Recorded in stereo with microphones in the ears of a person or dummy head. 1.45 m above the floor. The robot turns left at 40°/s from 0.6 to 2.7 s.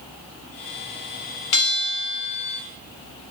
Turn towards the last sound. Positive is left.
turn(degrees=35)